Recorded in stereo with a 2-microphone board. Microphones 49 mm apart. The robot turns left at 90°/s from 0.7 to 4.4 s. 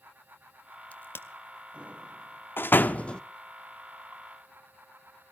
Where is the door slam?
45° left (ahead or behind), 0.7 m; by 3.2 s 15° left (ahead or behind), 0.7 m.